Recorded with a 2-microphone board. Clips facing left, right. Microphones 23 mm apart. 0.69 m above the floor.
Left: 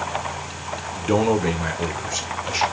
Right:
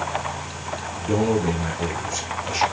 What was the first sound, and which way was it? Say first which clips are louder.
A man speaking: left 2 dB; 40° left (ahead or behind).